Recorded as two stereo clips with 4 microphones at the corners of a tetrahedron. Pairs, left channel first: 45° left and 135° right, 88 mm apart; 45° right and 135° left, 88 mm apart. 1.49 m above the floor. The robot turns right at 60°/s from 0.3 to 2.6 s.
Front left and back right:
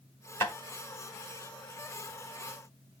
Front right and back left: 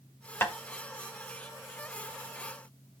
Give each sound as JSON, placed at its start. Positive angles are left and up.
{"t": 0.4, "sound": "tapping", "azimuth_deg": 5, "distance_m": 1.5}